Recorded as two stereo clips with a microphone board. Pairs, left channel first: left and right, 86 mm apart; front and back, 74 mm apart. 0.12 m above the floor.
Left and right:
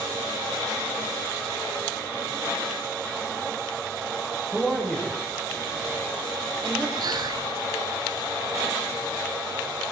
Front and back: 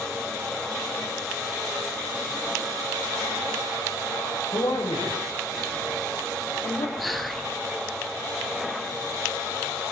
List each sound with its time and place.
4.5 s a man speaking: 10° left, 10 m
7.0 s whispering: 90° right, 2.5 m